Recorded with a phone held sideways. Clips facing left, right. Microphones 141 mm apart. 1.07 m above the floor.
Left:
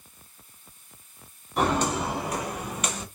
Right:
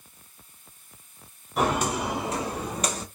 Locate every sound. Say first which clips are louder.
1.6 s footsteps: even; 5° right (ahead or behind), 1.5 m; by 3.0 s 35° right (ahead or behind), 1.4 m